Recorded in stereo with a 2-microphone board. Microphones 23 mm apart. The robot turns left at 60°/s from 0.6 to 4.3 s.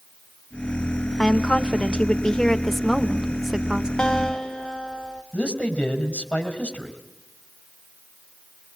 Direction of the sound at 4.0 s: 40° left (ahead or behind).